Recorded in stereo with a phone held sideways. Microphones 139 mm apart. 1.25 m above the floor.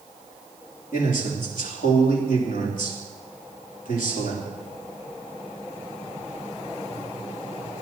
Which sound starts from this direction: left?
A man speaking, at 0.9 s.